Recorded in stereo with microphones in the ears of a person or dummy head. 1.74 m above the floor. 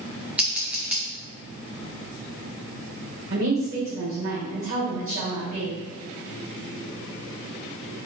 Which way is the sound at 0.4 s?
10° right (ahead or behind).